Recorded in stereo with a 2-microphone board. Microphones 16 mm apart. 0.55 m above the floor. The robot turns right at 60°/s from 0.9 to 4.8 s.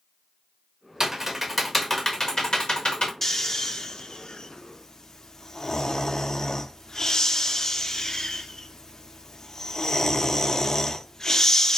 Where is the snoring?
25° left (ahead or behind), 0.5 m; by 11.8 s 35° left (ahead or behind), 0.5 m.